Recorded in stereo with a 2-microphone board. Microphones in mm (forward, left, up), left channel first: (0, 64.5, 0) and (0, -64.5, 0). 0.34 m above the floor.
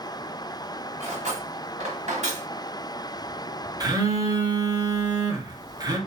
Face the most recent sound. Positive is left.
turn(degrees=-30)  # may be behind; listen again after turning